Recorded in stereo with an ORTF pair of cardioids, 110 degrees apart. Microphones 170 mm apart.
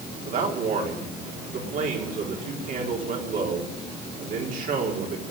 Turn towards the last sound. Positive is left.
turn(degrees=-55)